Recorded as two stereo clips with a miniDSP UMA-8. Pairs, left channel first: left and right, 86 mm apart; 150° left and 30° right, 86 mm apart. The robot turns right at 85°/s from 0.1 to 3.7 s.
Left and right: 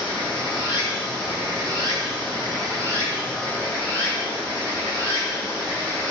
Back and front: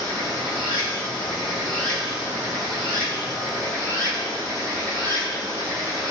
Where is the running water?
80° left, 1.1 m; by 6.1 s 25° left, 1.1 m.